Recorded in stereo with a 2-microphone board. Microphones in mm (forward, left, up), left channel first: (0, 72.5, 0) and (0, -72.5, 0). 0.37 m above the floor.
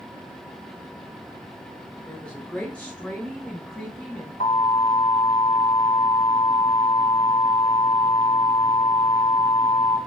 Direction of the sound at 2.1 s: 5° left (ahead or behind).